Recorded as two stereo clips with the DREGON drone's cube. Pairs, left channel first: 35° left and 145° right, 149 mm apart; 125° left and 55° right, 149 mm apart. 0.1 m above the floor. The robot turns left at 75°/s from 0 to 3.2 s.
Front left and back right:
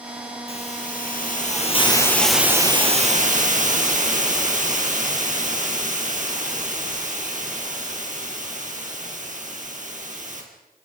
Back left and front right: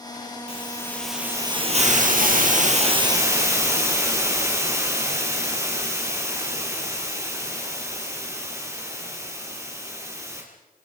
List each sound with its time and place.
0.5 s a hiss: 80° left, 4 m; by 10.4 s 125° right, 4 m